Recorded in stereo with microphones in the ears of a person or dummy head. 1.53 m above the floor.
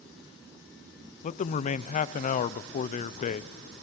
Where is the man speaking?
40° left (ahead or behind), 0.6 m.